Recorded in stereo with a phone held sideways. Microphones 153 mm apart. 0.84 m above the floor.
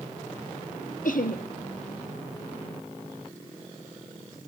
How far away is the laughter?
About 0.9 m.